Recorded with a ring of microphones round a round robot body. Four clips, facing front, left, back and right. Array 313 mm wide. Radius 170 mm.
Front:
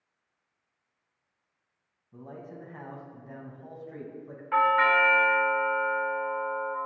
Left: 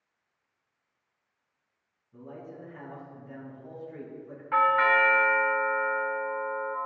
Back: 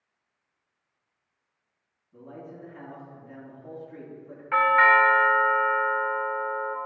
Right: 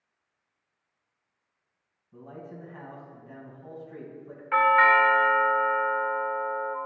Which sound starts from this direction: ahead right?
A man speaking, at 2.1 s.